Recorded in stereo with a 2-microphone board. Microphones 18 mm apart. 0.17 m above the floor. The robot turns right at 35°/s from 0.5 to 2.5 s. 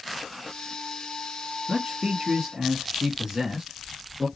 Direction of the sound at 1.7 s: 40° right (ahead or behind).